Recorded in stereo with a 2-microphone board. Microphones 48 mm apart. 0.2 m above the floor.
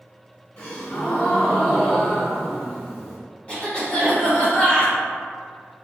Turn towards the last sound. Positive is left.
turn(degrees=25)  # may be behind; listen again after turning